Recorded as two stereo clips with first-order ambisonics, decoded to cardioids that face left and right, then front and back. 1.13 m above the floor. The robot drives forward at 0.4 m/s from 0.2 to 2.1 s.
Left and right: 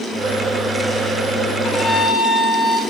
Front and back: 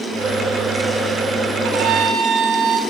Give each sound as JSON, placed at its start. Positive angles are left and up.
{"t": 1.6, "sound": "a violin", "azimuth_deg": 155, "distance_m": 6.0}